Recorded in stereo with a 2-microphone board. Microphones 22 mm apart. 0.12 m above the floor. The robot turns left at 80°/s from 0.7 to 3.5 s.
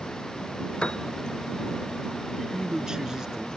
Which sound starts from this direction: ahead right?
A man speaking, at 2.4 s.